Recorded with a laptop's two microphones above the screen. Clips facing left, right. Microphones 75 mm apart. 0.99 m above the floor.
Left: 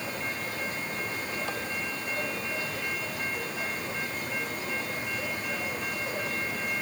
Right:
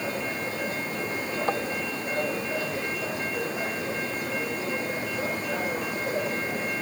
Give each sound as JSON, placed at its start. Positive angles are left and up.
{"t": 0.0, "sound": "a machine running", "side_deg": -30}
{"t": 1.5, "sound": "tapping", "side_deg": -40}